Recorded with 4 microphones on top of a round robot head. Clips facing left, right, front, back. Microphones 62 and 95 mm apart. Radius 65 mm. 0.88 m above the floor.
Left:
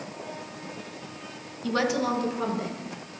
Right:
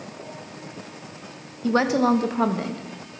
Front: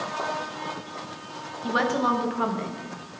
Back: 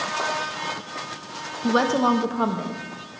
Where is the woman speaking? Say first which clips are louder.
Right 6 dB, back 4 dB; 140° right, 0.7 m; by 3.2 s 110° right, 1.3 m.